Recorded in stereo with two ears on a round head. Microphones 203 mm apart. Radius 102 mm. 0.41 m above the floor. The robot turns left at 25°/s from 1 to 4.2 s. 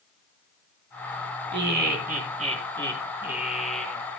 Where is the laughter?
125° right, 4.5 m; by 4.0 s 170° left, 4.5 m.